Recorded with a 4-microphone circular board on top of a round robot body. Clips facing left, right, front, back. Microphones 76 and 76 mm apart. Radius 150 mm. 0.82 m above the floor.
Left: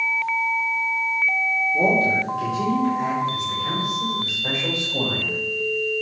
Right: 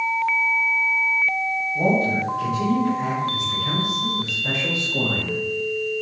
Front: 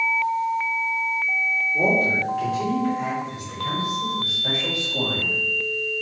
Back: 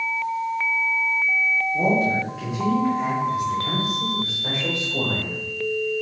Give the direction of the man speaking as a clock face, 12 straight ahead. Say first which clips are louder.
Even, even; 9 o'clock.